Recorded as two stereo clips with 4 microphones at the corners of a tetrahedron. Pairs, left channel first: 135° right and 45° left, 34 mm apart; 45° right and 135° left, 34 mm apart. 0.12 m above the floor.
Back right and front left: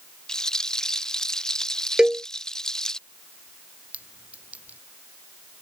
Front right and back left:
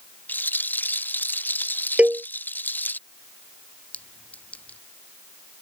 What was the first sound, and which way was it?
A rattle, 65° right.